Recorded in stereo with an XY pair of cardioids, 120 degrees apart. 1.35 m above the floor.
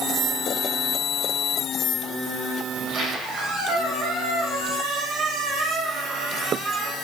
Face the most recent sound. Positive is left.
turn(degrees=-65)